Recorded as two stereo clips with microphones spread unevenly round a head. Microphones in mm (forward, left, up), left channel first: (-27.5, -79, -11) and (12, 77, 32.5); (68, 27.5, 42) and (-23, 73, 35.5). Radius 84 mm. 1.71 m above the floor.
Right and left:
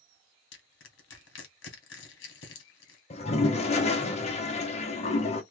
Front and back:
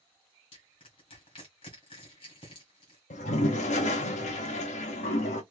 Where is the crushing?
80° right, 1.2 m.